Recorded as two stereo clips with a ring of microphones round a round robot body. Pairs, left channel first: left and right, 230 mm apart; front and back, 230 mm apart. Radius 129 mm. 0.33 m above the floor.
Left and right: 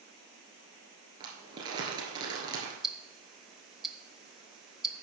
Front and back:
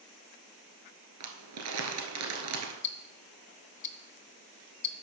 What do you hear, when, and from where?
1.2 s crumpling: 165° right, 2.0 m
2.8 s ticking: straight ahead, 0.8 m